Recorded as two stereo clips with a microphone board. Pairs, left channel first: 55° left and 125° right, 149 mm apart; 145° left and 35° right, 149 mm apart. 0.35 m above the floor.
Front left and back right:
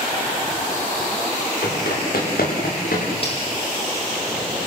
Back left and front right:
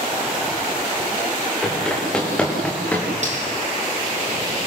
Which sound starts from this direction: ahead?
Cutlery clinking, at 3.2 s.